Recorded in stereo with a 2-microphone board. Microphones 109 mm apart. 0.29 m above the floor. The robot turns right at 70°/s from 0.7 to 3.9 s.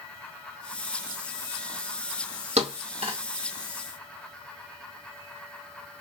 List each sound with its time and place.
2.6 s a thud: 80° right, 2.5 m; by 3.2 s 55° right (ahead or behind), 2.5 m